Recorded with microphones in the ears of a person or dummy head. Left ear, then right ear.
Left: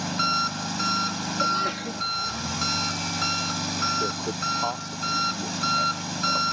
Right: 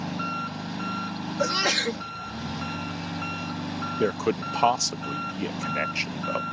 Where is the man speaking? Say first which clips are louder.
Right 1 dB; 75° right (ahead or behind).